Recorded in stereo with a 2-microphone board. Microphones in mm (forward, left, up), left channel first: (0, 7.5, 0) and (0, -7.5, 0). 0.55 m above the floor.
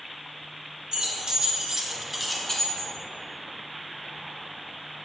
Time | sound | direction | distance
0.9 | keys jangling | 60° right (ahead or behind) | 1.3 m